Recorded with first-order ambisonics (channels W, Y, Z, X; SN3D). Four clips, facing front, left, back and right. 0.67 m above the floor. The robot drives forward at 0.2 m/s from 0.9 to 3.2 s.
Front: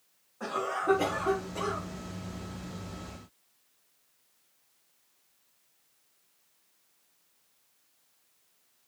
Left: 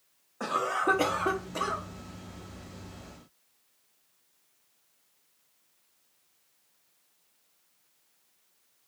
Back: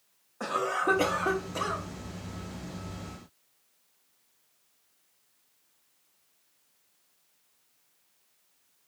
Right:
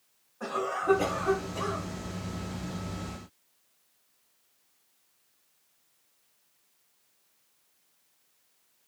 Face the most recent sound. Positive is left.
turn(degrees=150)